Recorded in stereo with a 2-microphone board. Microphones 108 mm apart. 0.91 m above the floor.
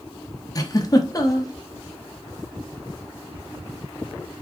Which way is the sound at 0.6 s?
35° left (ahead or behind).